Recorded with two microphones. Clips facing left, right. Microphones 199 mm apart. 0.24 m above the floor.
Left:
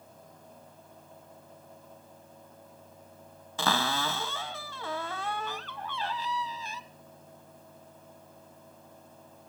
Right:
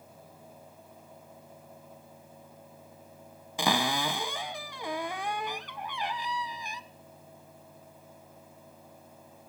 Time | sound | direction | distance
3.6 | a cupboard door | 15° right (ahead or behind) | 0.6 m